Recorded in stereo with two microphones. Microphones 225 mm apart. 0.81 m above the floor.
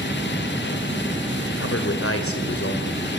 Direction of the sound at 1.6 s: 80° left.